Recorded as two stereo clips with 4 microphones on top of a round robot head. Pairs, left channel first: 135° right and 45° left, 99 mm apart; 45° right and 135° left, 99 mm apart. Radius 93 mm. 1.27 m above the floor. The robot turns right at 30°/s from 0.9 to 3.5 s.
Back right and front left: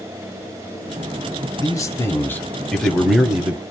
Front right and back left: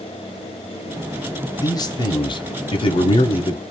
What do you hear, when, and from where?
1.6 s a man speaking: 90° right, 0.9 m; by 3.6 s 35° right, 0.9 m